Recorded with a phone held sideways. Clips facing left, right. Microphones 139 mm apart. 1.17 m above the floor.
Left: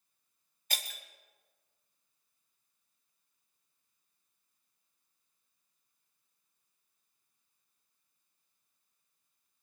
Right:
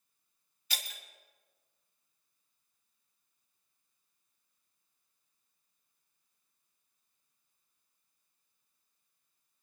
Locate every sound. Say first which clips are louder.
0.7 s breaking glass: left 2 dB; 45° left (ahead or behind), 1.4 m